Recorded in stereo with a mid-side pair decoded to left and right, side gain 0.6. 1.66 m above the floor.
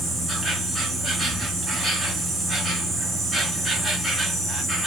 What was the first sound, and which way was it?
An insect, 5° left.